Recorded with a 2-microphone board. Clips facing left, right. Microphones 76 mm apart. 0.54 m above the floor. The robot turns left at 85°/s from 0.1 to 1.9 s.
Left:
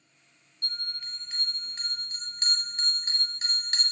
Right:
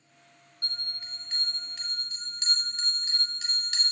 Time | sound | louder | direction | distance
0.6 | a bell | left 1 dB | 125° right | 0.7 m